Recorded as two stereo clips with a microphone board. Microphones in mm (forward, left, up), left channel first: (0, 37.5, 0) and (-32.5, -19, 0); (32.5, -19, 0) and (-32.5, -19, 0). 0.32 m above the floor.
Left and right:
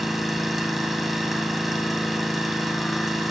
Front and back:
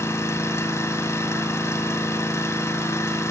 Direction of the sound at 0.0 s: 30° right.